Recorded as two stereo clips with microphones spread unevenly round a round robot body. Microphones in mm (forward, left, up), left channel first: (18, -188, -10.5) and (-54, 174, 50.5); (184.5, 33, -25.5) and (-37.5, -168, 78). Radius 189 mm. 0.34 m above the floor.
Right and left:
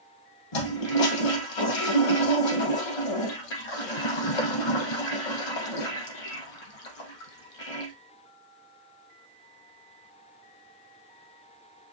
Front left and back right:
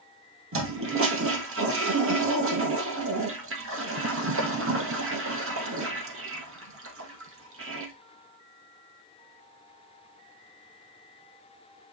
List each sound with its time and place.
0.5 s a toilet flushing: 90° right, 2.5 m